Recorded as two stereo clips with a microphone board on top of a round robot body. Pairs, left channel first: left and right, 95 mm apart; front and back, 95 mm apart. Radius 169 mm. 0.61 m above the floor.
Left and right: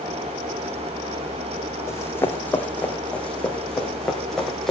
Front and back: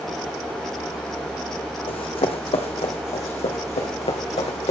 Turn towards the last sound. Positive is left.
turn(degrees=5)